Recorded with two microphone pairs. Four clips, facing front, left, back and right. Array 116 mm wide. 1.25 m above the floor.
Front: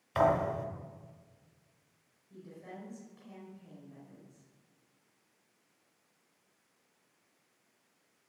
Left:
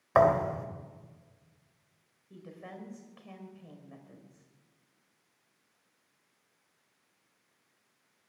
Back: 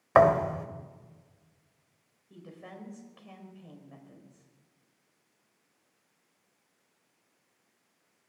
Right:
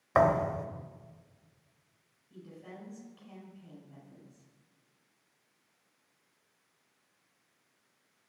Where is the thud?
170° left, 2.0 m.